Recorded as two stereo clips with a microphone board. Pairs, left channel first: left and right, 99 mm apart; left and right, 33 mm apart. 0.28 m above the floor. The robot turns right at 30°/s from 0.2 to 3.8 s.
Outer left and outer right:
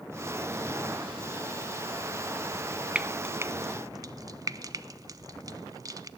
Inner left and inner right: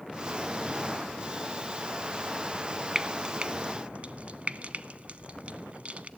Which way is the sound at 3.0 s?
15° right (ahead or behind).